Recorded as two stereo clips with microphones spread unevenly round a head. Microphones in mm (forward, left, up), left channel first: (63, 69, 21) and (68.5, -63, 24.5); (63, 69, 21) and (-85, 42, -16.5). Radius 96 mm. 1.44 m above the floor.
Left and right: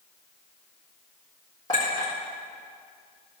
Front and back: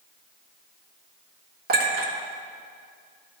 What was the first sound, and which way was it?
A clink, 165° left.